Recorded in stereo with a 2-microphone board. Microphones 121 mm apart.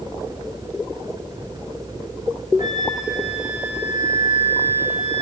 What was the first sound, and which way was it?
A flute, 70° left (ahead or behind).